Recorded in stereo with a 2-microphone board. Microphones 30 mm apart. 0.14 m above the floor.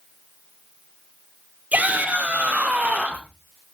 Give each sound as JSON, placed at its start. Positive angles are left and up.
{"t": 1.7, "sound": "a shout", "side_deg": -60, "distance_m": 4.5}